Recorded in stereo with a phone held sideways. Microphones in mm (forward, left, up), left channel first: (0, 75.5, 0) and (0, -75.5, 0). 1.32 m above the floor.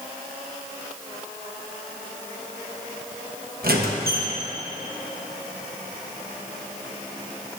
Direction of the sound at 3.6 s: 80° right.